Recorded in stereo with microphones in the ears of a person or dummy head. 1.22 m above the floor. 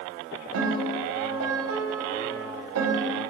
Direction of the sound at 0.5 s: 80° right.